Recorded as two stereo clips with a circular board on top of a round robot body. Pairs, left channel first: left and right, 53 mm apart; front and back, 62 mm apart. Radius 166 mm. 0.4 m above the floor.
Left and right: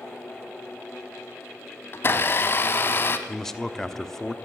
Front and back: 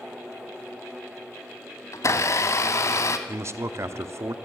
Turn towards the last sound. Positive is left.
turn(degrees=170)